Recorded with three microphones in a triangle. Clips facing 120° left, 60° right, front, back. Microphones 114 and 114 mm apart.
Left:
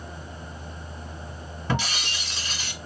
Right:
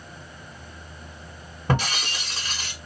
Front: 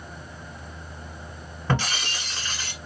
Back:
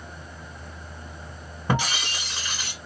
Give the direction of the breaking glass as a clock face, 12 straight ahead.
3 o'clock.